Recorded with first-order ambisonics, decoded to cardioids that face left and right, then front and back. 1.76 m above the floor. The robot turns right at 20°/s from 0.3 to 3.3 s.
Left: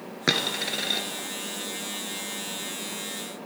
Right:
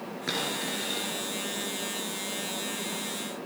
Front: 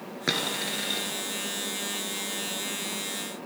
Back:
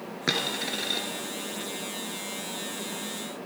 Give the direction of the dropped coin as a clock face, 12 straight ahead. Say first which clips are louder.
Left 6 dB, even; 9 o'clock.